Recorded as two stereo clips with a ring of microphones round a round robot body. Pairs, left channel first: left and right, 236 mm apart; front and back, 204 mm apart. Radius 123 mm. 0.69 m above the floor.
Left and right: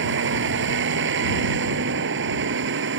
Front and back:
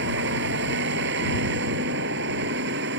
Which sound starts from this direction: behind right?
A vehicle, at 0.0 s.